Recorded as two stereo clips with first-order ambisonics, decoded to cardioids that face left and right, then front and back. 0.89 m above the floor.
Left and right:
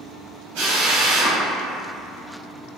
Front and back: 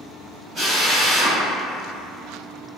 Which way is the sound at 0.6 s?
110° right.